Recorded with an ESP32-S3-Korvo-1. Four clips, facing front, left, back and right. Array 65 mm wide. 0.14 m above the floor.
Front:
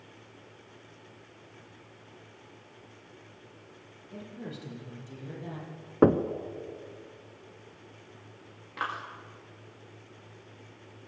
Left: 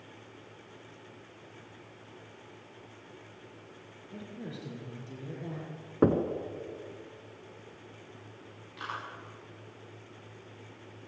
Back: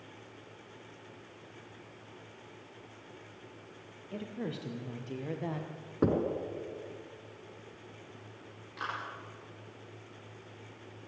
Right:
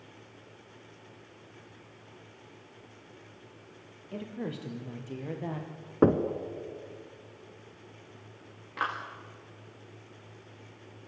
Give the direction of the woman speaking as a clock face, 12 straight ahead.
4 o'clock.